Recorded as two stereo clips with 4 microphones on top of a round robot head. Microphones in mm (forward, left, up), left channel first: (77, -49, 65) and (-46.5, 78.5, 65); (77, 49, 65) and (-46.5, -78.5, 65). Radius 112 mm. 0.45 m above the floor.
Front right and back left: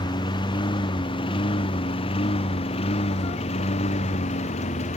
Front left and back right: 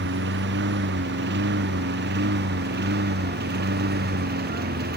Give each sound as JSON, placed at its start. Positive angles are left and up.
{"t": 0.0, "sound": "a lawn mower", "azimuth_deg": -115}